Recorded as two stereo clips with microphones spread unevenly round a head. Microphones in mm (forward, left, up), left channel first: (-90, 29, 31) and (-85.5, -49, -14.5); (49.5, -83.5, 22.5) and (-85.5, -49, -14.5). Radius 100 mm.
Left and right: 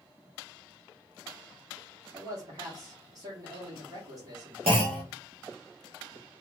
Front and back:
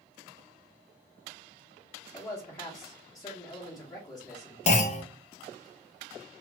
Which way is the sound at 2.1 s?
85° right.